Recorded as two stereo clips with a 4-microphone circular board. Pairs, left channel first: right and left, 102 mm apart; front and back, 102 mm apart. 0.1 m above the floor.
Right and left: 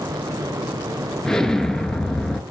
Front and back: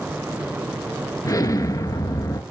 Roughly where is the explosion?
Ahead.